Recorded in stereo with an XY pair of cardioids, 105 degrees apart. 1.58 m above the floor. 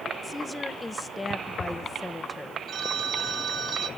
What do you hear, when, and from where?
0.2 s a woman speaking: 20° left, 1.1 m
2.7 s a phone ringing: 55° right, 1.3 m